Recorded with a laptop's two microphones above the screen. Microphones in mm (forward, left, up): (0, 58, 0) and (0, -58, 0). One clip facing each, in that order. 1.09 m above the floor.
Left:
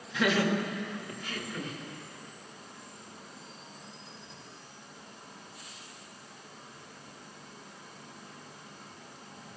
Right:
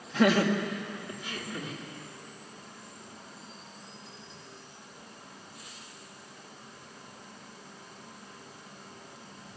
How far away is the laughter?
About 1.5 m.